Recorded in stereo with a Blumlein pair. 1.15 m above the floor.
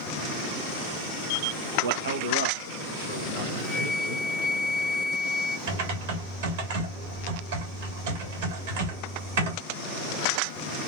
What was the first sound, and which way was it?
A man speaking, 60° right.